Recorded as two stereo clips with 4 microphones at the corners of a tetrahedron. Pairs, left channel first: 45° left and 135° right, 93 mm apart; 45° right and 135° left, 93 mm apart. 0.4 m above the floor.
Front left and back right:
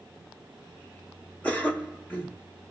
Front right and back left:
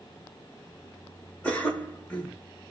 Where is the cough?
5° left, 1.2 m.